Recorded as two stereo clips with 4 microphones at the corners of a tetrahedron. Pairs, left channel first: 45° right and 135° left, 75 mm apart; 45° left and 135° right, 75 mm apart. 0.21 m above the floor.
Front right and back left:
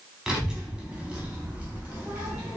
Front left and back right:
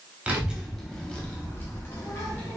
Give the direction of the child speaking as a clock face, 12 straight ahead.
5 o'clock.